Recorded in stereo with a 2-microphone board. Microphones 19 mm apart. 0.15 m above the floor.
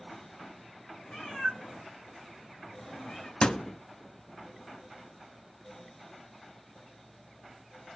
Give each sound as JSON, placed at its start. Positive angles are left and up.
{"t": 1.1, "sound": "a cat meowing", "side_deg": 60, "distance_m": 4.0}
{"t": 3.4, "sound": "a thud", "side_deg": 45, "distance_m": 0.5}